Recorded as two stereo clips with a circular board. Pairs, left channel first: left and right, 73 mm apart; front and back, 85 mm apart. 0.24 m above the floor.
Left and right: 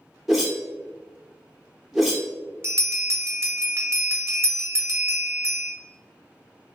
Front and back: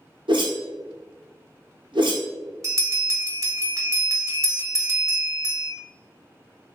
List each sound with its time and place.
0.3 s a whoosh: 175° right, 0.8 m
2.6 s a bell: 135° right, 0.7 m